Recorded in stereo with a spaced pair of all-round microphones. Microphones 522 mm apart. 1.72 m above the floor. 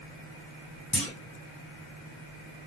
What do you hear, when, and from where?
0.9 s a clunk: centre (ahead or behind), 1.9 m